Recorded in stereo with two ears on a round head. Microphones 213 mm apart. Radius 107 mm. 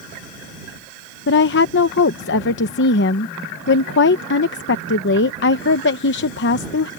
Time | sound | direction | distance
1.3 | a woman speaking | 50° left (ahead or behind) | ?